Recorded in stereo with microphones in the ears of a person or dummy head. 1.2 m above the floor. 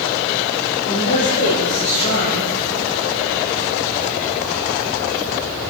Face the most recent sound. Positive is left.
turn(degrees=60)  # may be behind; listen again after turning